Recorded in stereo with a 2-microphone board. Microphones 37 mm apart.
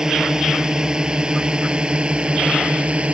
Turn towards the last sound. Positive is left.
turn(degrees=-30)  # may be behind; listen again after turning